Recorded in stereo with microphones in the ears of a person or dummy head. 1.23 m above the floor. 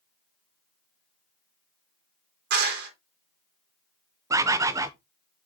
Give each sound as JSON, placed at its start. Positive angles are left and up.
{"t": 2.5, "sound": "a clap", "side_deg": -70, "distance_m": 4.0}
{"t": 4.3, "sound": "a bird", "side_deg": -10, "distance_m": 0.5}